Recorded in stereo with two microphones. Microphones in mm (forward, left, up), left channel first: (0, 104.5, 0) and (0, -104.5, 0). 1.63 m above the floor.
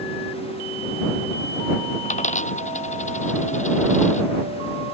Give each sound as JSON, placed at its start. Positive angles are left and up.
{"t": 2.0, "sound": "a dropped coin", "side_deg": 40}